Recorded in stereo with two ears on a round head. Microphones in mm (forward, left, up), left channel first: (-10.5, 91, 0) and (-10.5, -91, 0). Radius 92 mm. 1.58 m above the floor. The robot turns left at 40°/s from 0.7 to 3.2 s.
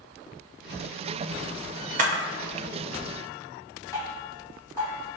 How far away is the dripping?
About 1.3 m.